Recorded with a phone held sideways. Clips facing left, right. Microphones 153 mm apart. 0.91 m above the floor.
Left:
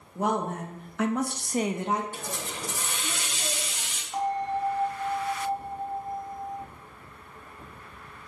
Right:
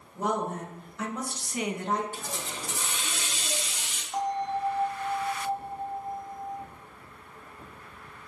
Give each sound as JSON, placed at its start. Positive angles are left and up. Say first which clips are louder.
{"t": 0.1, "sound": "a woman speaking", "louder": "left 2 dB", "side_deg": 60, "distance_m": 1.3}
{"t": 2.1, "sound": "a hiss", "louder": "left 1 dB", "side_deg": 55, "distance_m": 0.8}
{"t": 4.1, "sound": "a bell", "louder": "left 1 dB", "side_deg": 0, "distance_m": 1.2}